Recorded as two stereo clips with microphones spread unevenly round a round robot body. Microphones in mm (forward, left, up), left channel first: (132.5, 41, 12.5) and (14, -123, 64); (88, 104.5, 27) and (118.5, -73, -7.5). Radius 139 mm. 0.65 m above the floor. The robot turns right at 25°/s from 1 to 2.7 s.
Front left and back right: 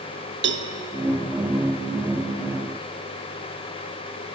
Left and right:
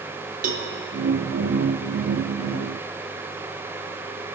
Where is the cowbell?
95° right, 0.8 m.